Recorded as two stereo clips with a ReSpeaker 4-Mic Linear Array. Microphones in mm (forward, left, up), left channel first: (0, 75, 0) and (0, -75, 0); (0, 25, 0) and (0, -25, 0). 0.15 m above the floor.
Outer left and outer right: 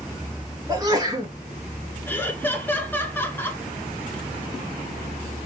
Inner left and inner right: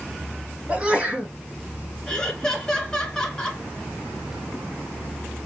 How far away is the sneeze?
About 1.7 m.